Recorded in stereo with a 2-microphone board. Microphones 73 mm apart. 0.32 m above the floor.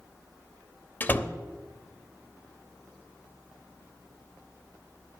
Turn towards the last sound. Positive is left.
turn(degrees=25)  # may be behind; listen again after turning